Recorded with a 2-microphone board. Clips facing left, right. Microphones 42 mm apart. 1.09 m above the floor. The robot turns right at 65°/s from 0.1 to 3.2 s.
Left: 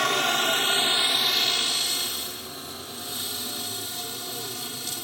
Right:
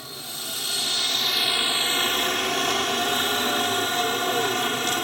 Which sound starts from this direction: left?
A helicopter, at 0.0 s.